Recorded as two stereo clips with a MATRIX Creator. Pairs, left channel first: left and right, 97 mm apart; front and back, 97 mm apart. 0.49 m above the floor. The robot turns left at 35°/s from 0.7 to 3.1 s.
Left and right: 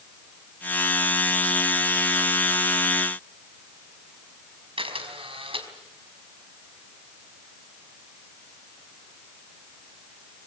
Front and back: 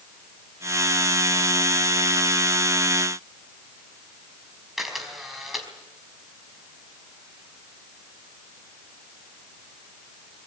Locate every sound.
4.8 s a camera shutter: 90° right, 4.5 m